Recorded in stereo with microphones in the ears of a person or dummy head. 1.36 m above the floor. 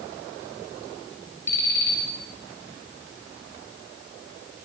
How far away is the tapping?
No tapping in this recording.